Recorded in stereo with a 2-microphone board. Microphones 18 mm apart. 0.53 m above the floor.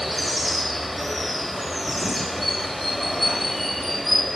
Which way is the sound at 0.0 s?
5° left (ahead or behind).